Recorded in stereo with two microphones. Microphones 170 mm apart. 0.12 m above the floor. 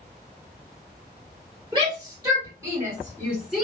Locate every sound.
1.7 s a shout: 30° right (ahead or behind), 2.0 m; by 3.6 s centre (ahead or behind), 1.8 m